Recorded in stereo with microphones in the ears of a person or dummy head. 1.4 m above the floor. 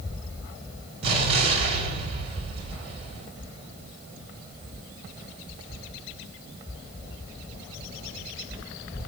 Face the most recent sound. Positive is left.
turn(degrees=-40)  # may be behind; listen again after turning